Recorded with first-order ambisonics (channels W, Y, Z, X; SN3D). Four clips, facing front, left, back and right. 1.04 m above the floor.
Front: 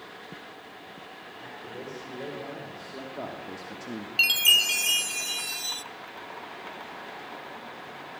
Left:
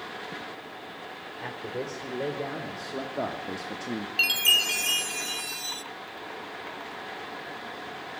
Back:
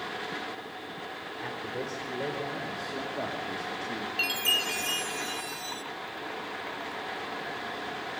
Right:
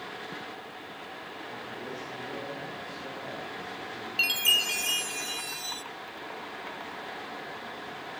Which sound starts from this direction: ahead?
A chime, at 4.2 s.